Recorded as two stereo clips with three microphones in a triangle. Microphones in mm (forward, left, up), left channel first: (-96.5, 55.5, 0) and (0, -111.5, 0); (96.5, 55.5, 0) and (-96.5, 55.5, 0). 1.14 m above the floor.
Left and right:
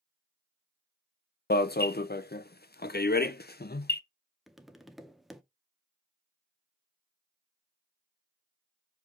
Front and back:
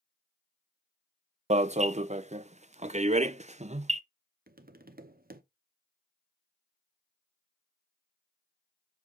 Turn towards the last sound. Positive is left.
turn(degrees=-150)